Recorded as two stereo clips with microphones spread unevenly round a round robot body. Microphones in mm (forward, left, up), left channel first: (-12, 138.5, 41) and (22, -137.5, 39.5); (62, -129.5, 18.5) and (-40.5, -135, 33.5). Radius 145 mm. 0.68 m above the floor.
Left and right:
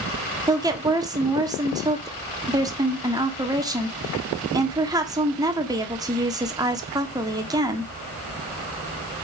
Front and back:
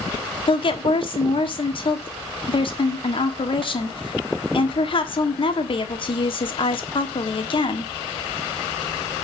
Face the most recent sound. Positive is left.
turn(degrees=-10)